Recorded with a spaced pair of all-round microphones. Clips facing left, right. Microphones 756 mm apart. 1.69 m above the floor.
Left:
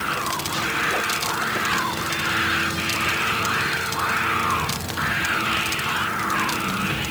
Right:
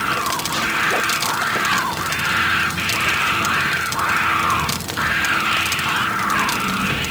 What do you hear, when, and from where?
Only background noise.